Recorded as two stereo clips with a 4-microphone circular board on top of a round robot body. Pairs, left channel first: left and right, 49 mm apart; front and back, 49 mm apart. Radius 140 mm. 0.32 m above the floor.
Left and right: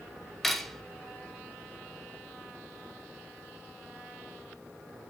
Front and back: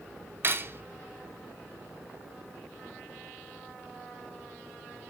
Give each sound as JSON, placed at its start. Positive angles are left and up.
{"t": 0.4, "sound": "cutlery clinking", "azimuth_deg": 175, "distance_m": 0.6}